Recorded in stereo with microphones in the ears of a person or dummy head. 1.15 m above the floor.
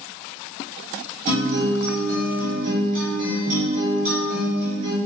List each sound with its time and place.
1.3 s a guitar: 45° right (ahead or behind), 1.6 m